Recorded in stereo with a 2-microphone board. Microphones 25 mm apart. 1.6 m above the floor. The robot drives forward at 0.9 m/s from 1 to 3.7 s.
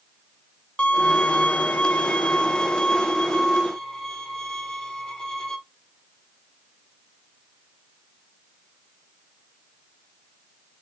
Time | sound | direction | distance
0.8 | a violin | 45° left (ahead or behind) | 1.1 m